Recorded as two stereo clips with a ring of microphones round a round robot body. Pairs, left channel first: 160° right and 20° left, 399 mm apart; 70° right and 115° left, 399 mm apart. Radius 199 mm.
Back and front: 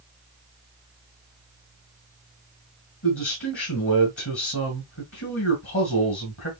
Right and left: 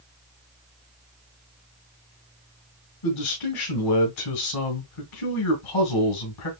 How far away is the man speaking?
About 1.8 m.